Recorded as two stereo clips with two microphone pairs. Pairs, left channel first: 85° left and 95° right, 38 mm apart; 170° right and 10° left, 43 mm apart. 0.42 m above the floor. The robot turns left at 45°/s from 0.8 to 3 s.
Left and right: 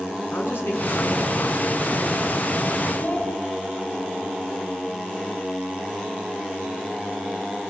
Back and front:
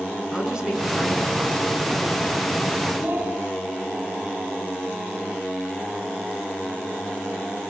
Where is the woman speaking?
85° left, 6 m; by 2.4 s 15° left, 6 m.